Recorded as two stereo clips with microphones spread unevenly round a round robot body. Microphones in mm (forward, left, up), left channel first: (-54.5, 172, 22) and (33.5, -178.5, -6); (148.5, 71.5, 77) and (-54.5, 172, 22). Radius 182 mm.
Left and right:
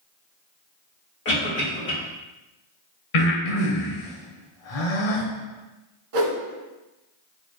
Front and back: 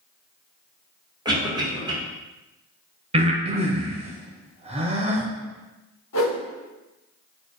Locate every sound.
1.2 s a cough: 140° left, 1.2 m
3.1 s breathing: 90° left, 1.0 m
6.1 s a whoosh: 65° right, 1.1 m